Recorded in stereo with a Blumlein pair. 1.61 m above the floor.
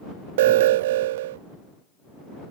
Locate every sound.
0.4 s an alarm: 55° right